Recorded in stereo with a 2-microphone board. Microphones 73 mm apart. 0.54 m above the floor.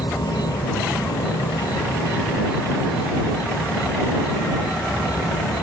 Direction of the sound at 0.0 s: 80° left.